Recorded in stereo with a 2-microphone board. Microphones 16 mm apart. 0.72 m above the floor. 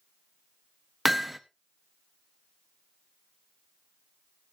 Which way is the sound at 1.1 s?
5° right (ahead or behind).